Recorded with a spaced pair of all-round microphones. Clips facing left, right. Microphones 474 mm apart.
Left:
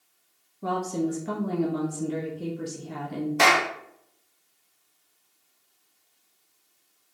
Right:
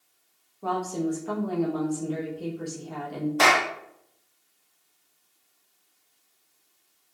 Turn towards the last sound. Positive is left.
turn(degrees=45)  # may be behind; listen again after turning